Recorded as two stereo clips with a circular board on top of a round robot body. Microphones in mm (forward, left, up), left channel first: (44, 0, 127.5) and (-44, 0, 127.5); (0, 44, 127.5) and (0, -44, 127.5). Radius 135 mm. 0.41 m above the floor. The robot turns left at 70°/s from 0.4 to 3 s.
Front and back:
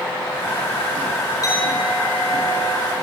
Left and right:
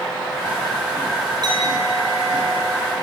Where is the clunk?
No clunk in this recording.